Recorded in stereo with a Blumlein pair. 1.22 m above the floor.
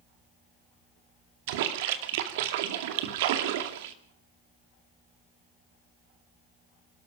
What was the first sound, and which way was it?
A splash, 50° right.